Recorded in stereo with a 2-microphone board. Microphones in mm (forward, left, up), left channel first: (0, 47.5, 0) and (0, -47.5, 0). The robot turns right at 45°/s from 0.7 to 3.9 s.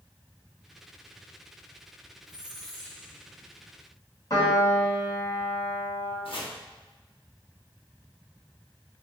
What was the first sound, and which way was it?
A squeak, 15° right.